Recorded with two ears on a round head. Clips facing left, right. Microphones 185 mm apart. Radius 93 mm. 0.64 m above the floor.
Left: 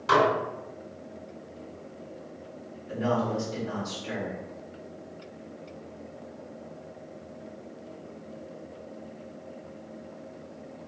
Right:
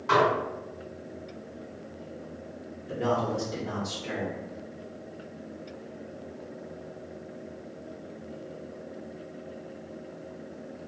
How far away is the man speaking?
About 1.6 m.